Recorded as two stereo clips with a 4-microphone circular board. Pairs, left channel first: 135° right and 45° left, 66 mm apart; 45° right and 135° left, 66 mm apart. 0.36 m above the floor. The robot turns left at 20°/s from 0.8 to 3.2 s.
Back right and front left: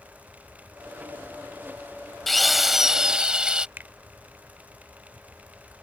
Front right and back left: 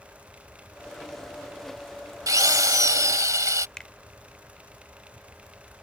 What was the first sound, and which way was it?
A drill, 135° left.